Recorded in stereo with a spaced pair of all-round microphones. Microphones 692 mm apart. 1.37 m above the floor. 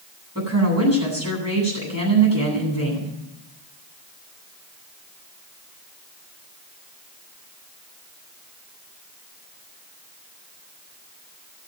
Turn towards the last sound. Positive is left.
turn(degrees=-20)  # may be behind; listen again after turning